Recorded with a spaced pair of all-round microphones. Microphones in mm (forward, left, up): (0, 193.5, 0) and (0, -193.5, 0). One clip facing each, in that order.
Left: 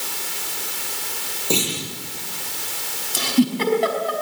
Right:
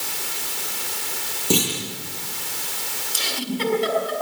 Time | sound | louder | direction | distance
1.5 | a clunk | right 2 dB | 30° right (ahead or behind) | 9 m
3.1 | a giggle | left 10 dB | 75° left (ahead or behind) | 5 m